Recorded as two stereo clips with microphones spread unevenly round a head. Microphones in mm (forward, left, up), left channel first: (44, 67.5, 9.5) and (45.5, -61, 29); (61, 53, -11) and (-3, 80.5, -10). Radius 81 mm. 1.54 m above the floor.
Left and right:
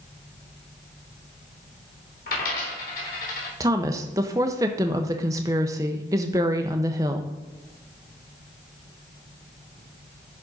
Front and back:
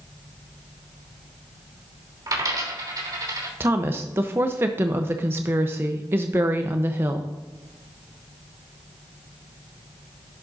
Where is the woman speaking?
145° right, 0.6 m.